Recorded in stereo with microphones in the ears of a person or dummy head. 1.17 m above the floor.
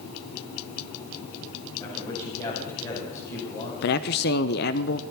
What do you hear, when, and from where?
1.8 s a man speaking: 25° left (ahead or behind), 6.5 m
3.8 s a man speaking: 50° left (ahead or behind), 0.6 m